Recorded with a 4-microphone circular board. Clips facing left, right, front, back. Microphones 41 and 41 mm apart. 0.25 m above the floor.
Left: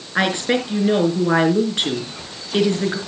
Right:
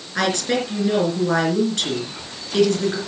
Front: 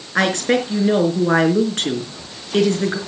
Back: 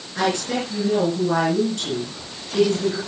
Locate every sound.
0.1 s a woman speaking: 25° left, 4 m